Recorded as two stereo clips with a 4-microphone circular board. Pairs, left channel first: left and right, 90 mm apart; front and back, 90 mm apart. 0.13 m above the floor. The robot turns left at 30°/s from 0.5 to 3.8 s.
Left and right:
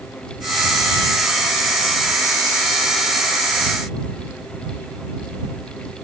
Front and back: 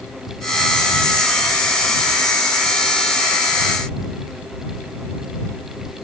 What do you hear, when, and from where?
Only background noise.